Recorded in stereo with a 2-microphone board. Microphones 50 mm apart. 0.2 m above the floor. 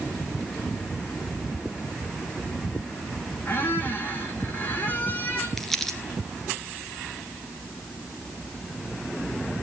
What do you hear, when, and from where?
3.5 s a squeak: 35° left (ahead or behind), 3 m
5.6 s crumpling: 5° left (ahead or behind), 1.6 m